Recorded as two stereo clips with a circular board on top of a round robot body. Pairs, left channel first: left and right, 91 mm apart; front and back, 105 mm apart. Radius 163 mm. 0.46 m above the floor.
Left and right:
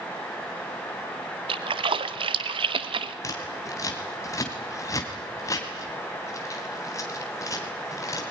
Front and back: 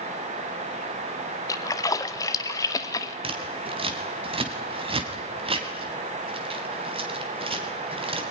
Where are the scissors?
145° left, 3 m.